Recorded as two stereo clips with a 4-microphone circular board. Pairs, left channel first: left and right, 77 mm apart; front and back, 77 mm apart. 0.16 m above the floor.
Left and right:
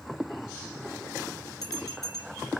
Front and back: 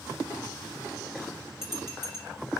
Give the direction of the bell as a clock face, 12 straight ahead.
10 o'clock.